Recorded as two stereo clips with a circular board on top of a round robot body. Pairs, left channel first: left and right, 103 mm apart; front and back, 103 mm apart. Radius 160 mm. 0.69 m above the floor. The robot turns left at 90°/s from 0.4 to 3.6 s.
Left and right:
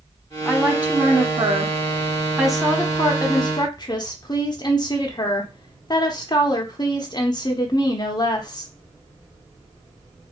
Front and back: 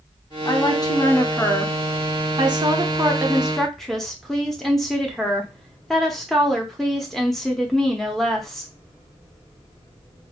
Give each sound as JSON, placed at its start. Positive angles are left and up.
{"t": 0.5, "sound": "a woman speaking", "azimuth_deg": 10, "distance_m": 0.8}